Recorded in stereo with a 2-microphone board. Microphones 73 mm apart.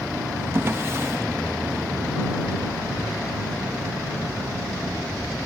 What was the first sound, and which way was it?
A drawer, 35° right (ahead or behind).